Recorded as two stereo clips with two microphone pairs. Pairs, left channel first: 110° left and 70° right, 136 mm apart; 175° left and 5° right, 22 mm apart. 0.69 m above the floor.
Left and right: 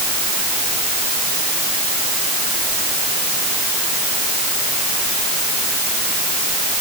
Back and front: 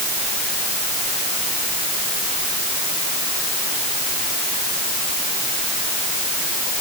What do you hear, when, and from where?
Only background noise.